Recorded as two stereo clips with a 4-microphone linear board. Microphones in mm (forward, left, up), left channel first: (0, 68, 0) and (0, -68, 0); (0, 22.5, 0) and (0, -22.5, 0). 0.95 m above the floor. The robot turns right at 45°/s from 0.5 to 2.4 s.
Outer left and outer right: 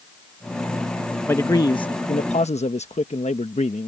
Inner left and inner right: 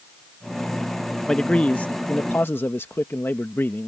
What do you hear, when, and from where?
1.3 s a man speaking: 20° left; by 3.9 s 70° left